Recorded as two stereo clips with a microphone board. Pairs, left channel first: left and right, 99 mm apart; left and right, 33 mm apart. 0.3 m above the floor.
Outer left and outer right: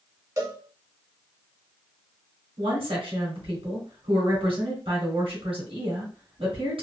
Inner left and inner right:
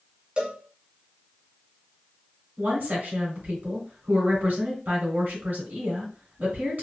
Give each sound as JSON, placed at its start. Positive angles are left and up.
{"t": 0.4, "sound": "a cowbell", "side_deg": -35, "distance_m": 1.3}
{"t": 2.6, "sound": "a woman speaking", "side_deg": -65, "distance_m": 2.5}